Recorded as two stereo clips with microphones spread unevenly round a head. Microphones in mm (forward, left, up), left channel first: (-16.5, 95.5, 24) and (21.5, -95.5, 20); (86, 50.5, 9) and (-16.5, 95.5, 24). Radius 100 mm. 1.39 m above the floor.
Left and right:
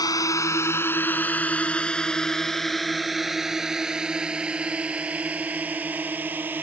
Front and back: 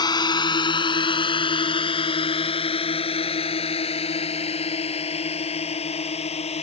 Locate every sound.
0.0 s a drone: 30° left; by 6.6 s 5° left